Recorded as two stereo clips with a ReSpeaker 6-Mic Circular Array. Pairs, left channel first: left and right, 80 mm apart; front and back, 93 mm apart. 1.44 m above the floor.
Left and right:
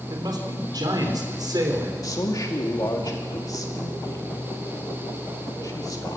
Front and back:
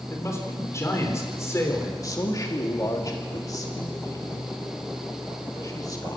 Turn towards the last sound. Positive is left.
turn(degrees=50)